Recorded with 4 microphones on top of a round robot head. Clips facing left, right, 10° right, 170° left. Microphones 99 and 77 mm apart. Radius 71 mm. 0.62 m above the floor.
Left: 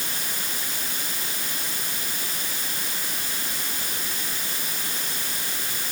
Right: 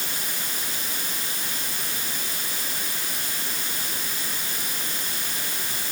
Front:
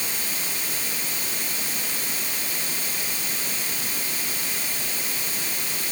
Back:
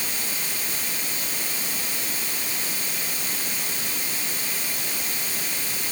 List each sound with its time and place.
Only background noise.